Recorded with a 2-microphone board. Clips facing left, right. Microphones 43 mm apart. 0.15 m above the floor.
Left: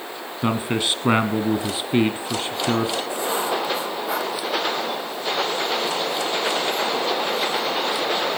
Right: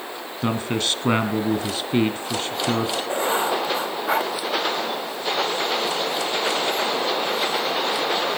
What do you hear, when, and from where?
0.4 s a man speaking: 15° left (ahead or behind), 1.4 m
3.1 s writing: 40° right (ahead or behind), 6 m